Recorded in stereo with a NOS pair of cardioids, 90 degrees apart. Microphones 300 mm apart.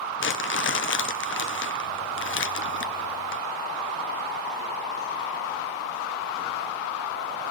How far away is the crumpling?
About 1.0 m.